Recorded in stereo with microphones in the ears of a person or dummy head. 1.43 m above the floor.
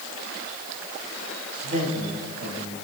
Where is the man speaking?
50° right (ahead or behind), 8 m.